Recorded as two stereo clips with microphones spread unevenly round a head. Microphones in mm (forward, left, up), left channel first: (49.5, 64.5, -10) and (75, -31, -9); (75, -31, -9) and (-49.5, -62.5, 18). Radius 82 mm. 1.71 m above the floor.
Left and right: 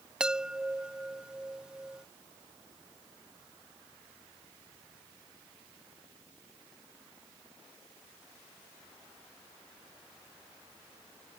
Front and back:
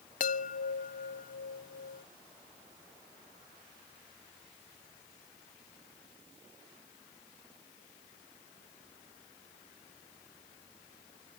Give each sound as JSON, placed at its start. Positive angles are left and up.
{"t": 0.2, "sound": "a chime", "azimuth_deg": 5}